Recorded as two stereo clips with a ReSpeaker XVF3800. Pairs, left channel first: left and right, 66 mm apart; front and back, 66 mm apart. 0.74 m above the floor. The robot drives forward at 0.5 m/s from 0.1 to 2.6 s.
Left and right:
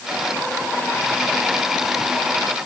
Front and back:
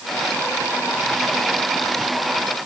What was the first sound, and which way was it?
Only background noise.